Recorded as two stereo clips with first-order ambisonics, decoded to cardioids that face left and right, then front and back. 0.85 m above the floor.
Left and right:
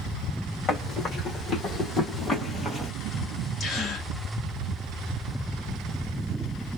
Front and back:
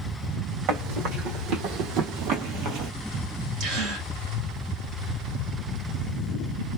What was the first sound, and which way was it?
Running footsteps, 150° left.